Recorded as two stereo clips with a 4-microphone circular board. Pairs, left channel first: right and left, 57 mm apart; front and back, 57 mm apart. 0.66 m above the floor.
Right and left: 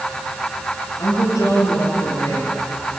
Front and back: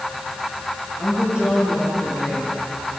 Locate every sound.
1.0 s a woman speaking: 110° right, 8.5 m